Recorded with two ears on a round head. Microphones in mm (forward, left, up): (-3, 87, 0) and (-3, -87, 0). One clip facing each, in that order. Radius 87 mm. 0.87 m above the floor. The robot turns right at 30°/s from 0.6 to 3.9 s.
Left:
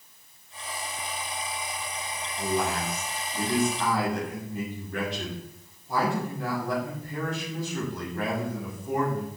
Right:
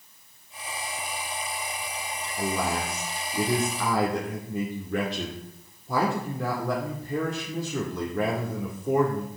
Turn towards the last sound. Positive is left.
turn(degrees=-65)